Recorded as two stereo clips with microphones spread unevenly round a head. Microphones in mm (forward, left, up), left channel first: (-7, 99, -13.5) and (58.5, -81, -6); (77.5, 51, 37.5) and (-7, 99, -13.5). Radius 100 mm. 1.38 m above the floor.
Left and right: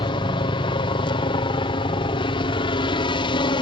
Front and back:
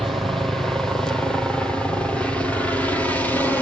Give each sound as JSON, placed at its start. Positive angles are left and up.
{"t": 0.0, "sound": "a helicopter", "azimuth_deg": 135}